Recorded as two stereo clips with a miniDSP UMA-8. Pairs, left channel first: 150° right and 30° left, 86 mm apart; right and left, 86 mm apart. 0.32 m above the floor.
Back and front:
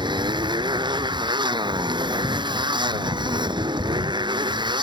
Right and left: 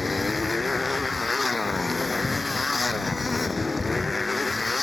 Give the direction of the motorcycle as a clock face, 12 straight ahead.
12 o'clock.